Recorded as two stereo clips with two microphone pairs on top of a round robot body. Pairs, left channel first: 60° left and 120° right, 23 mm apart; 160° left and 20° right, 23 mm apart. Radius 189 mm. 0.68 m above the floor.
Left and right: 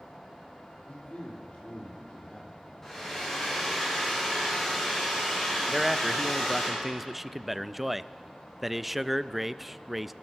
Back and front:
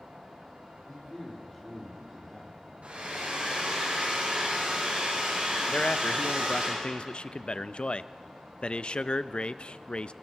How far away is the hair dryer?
About 8 m.